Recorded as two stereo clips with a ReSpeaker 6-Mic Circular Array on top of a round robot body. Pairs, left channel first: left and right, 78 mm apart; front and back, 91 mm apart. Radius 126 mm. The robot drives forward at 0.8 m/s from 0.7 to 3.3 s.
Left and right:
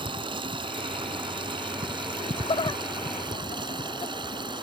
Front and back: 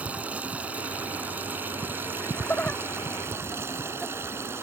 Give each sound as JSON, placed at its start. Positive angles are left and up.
{"t": 0.0, "sound": "running water", "azimuth_deg": -105}
{"t": 2.2, "sound": "laughter", "azimuth_deg": 70}